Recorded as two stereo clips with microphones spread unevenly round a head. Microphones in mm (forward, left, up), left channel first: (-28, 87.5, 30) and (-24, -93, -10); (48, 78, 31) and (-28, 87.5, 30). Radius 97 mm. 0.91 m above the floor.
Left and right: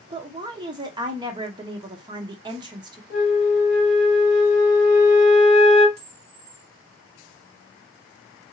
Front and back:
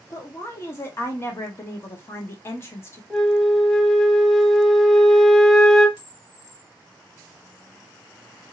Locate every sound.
0.1 s a woman speaking: 50° right, 0.7 m
3.1 s a flute: 75° left, 1.0 m
6.0 s a camera shutter: 30° right, 1.2 m